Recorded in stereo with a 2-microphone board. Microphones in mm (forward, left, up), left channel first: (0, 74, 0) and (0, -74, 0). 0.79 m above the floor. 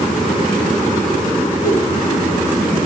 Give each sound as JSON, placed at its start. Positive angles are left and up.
{"t": 1.6, "sound": "a whoosh", "side_deg": 75, "distance_m": 4.5}